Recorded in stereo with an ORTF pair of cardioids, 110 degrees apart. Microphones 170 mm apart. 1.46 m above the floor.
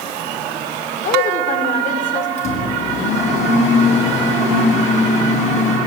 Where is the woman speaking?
45° left, 5.5 m.